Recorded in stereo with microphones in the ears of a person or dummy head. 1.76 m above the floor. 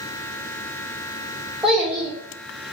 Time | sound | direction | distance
1.6 | a child speaking | 5° right (ahead or behind) | 0.8 m